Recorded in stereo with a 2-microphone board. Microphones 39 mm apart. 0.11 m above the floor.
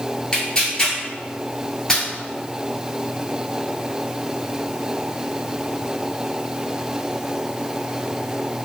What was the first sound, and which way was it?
Tearing paper, 20° left (ahead or behind).